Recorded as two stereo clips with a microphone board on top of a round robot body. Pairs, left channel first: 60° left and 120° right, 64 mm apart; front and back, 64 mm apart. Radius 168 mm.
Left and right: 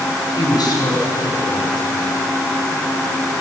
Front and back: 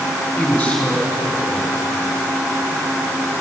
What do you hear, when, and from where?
0.4 s a man speaking: 85° left, 5 m